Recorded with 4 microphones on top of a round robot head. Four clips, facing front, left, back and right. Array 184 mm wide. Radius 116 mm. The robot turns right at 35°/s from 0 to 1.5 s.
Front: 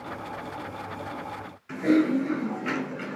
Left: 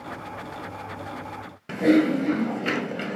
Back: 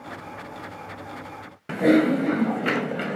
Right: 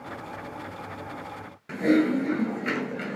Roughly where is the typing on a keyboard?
Behind.